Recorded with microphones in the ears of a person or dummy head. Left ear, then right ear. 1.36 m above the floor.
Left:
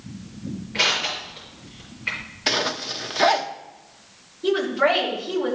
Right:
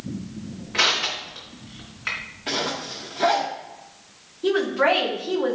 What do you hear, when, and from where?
0.7 s crushing: 45° right (ahead or behind), 3.5 m
2.5 s a zipper: 55° left (ahead or behind), 0.8 m
4.4 s a woman speaking: 25° right (ahead or behind), 3 m